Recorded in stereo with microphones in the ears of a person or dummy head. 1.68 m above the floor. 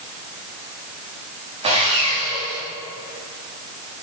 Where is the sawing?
35° right (ahead or behind), 1.4 m.